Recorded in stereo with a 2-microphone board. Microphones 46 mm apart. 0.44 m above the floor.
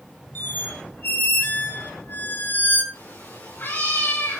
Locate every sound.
0.3 s a squeak: 45° left (ahead or behind), 2.5 m
2.9 s a cat meowing: 45° left (ahead or behind), 6.5 m